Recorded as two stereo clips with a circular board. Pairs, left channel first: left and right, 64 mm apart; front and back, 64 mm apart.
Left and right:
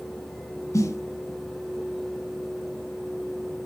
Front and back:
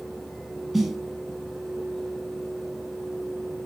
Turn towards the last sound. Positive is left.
turn(degrees=95)